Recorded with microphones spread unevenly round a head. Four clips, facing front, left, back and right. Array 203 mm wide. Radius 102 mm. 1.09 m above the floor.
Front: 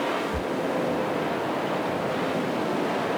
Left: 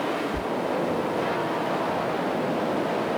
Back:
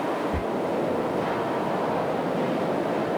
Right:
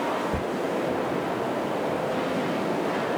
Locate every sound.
0.3 s whispering: 115° right, 0.7 m